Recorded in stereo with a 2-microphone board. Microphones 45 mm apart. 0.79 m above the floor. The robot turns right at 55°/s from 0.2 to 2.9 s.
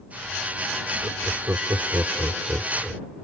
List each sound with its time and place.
1.0 s laughter: 40° right (ahead or behind); by 3.0 s 30° right (ahead or behind)